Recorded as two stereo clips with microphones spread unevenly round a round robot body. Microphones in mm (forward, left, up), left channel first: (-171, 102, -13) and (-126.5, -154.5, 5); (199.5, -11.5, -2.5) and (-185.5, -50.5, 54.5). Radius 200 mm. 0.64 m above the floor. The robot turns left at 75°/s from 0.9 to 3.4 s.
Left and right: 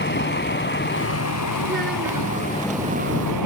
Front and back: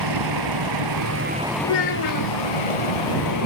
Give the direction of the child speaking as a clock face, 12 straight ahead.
12 o'clock.